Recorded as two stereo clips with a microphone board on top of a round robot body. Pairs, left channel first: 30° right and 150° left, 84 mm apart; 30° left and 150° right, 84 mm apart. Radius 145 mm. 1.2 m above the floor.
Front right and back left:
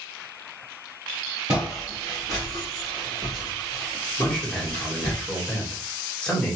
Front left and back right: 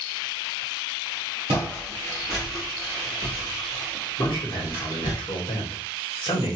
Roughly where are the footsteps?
Behind.